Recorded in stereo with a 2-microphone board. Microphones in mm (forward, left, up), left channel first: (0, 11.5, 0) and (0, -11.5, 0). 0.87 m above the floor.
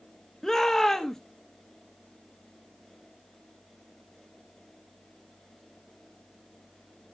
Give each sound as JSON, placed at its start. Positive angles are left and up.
{"t": 0.4, "sound": "a shout", "side_deg": 20, "distance_m": 0.9}